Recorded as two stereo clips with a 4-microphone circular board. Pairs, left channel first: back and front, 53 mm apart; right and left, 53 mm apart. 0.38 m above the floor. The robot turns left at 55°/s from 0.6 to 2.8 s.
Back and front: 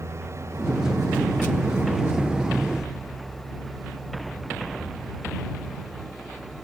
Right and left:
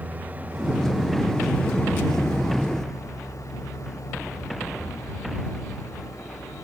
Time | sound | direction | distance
0.0 | an engine running | 30° left | ?